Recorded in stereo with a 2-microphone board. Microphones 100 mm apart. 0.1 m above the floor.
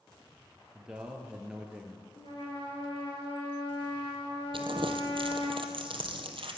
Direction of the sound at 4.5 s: 65° right (ahead or behind).